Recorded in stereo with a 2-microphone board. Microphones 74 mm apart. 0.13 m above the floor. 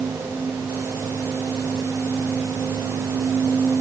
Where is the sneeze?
I don't hear a sneeze.